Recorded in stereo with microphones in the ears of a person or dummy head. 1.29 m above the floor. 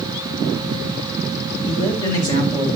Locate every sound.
1.6 s a man speaking: 20° left (ahead or behind), 5 m